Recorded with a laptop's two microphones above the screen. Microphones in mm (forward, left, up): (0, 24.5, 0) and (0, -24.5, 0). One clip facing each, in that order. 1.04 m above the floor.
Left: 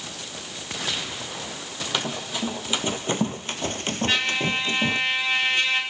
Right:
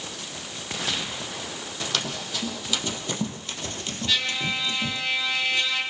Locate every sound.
1.9 s running footsteps: 20° left (ahead or behind), 2 m; by 5.0 s 40° left (ahead or behind), 1.6 m
4.1 s a trumpet: 35° left (ahead or behind), 5.5 m